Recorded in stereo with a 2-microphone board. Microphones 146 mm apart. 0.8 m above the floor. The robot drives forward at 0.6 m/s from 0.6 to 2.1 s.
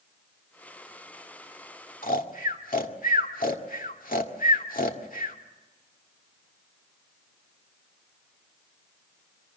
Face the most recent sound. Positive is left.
turn(degrees=70)  # may be behind; listen again after turning